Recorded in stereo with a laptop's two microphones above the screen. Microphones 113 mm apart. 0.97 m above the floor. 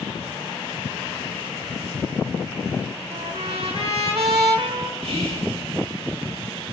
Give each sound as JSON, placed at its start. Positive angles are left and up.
{"t": 3.1, "sound": "a trumpet", "side_deg": -65, "distance_m": 1.4}
{"t": 5.0, "sound": "whispering", "side_deg": -75, "distance_m": 6.5}